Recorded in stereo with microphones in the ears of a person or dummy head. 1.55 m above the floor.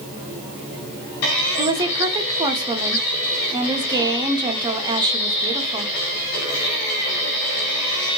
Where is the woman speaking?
20° right (ahead or behind), 0.6 m.